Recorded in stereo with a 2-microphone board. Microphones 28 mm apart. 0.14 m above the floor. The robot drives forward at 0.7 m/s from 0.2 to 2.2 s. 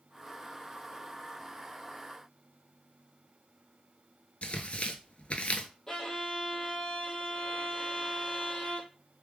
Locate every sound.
4.4 s tearing paper: 45° left (ahead or behind), 0.6 m
5.9 s a violin: 20° left (ahead or behind), 1.0 m